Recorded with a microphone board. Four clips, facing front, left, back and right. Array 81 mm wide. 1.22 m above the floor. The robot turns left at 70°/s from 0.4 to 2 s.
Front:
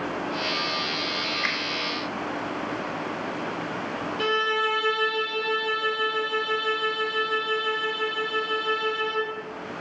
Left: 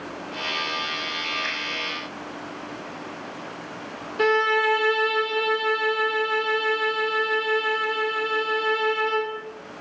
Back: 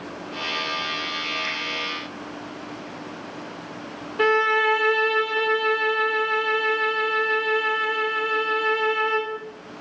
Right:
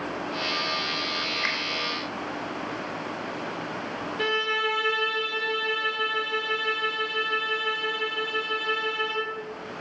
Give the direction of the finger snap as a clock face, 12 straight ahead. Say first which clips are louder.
Right 1 dB, front 2 dB; 1 o'clock.